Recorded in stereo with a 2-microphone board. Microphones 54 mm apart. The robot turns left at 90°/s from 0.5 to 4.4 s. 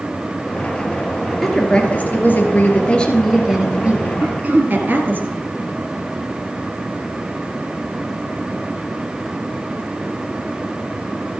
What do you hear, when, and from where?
1.4 s a woman speaking: 175° left, 2 m; by 5.2 s 95° right, 2 m
4.2 s throat clearing: 45° right (ahead or behind), 1.6 m; by 4.8 s 30° right (ahead or behind), 1.6 m